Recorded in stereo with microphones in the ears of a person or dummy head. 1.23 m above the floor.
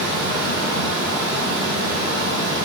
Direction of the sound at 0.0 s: 35° right (ahead or behind).